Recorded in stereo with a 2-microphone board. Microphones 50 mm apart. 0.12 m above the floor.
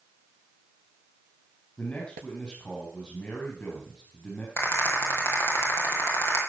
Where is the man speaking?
35° left (ahead or behind), 3.5 m.